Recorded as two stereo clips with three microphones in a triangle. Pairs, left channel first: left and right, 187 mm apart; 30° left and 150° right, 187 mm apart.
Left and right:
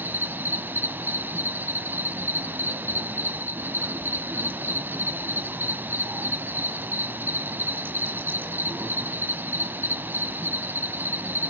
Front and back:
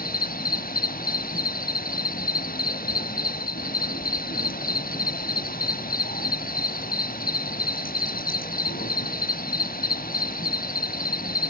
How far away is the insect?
About 0.9 m.